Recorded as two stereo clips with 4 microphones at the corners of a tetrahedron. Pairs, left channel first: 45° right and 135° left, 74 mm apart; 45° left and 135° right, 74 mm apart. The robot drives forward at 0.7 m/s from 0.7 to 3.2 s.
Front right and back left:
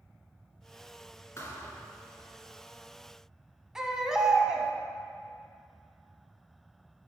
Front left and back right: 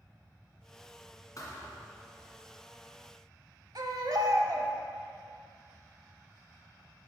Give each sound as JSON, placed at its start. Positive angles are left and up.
{"t": 1.4, "sound": "a thud", "azimuth_deg": 5, "distance_m": 1.5}
{"t": 3.8, "sound": "a baby crying", "azimuth_deg": -145, "distance_m": 0.8}